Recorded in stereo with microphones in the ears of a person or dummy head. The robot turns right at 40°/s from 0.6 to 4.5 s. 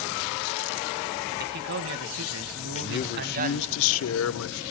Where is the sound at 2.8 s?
35° left, 1.1 m; by 4.6 s 105° left, 1.1 m.